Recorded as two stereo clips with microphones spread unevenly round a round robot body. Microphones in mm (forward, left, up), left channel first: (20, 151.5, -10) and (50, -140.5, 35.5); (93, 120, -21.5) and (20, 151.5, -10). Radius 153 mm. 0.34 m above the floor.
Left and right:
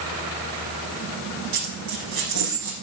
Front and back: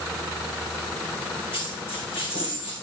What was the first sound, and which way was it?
A dropped coin, 75° right.